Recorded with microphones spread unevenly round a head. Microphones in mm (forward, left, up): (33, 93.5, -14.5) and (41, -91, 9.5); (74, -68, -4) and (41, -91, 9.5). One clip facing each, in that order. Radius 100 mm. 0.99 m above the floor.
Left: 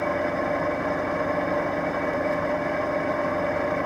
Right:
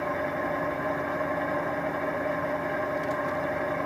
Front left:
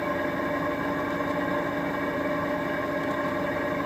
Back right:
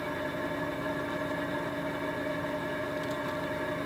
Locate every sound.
0.0 s an engine running: 55° left, 1.1 m